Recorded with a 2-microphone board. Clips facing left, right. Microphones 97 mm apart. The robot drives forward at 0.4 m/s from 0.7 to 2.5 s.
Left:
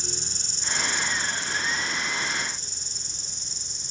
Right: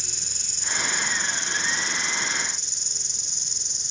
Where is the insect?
65° right (ahead or behind), 1.0 m; by 3.9 s 75° right (ahead or behind), 1.0 m.